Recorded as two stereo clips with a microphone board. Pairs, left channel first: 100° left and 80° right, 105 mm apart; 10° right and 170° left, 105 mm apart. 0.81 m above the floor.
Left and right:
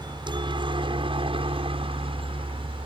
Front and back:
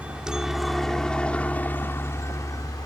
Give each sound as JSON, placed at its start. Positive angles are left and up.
{"t": 0.0, "sound": "a helicopter", "azimuth_deg": -115}